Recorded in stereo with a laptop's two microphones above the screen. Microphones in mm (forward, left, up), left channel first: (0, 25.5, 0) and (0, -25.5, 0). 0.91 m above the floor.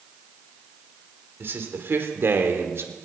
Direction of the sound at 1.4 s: 50° right (ahead or behind).